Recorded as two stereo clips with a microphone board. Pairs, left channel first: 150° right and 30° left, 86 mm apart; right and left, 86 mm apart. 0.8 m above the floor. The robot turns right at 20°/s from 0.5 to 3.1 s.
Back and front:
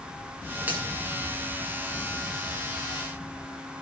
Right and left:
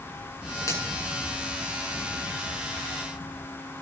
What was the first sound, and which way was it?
A finger snap, 40° right.